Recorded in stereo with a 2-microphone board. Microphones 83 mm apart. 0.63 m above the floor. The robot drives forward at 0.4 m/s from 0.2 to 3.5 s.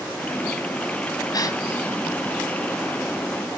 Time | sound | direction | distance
1.3 | a gasp | 55° left (ahead or behind) | 1.6 m